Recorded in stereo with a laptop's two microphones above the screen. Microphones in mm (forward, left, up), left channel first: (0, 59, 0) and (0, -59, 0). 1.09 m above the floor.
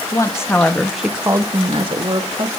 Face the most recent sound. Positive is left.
turn(degrees=-55)  # may be behind; listen again after turning